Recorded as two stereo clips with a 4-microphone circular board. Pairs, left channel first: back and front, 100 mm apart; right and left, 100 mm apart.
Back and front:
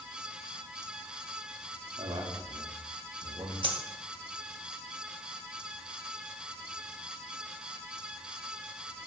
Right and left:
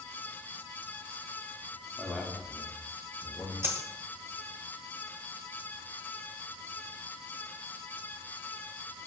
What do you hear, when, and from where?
2.0 s a man speaking: straight ahead, 2 m; by 3.5 s 35° right, 4 m
3.6 s a dropped coin: 25° left, 1.4 m